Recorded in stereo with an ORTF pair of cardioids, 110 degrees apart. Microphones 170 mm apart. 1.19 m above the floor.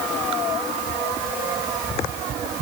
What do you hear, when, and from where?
Only background noise.